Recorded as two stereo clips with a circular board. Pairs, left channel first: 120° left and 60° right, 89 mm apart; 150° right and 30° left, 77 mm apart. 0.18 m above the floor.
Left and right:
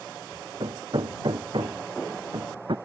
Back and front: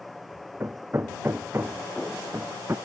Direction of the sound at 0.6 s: 30° right.